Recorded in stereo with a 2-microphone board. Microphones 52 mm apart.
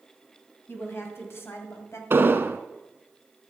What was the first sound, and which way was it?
A woman speaking, 50° left (ahead or behind).